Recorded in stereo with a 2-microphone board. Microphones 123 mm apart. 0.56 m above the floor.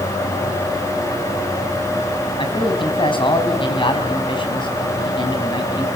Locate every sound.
2.4 s a man speaking: 45° left (ahead or behind), 4.5 m